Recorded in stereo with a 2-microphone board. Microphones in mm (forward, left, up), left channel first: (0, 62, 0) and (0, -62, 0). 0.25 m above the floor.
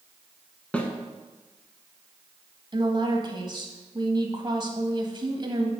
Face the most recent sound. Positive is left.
turn(degrees=-40)  # may be behind; listen again after turning